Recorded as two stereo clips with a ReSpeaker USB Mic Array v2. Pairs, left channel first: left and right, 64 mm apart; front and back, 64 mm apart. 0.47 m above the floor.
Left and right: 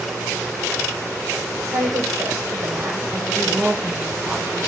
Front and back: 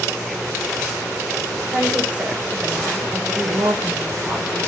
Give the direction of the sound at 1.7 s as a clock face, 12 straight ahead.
4 o'clock.